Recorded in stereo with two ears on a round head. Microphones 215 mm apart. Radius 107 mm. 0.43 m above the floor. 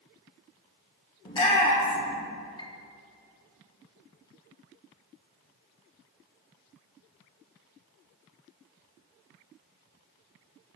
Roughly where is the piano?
Left.